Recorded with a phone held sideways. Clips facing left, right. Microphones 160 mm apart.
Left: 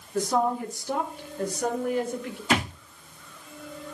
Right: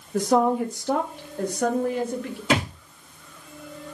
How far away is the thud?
About 5.5 m.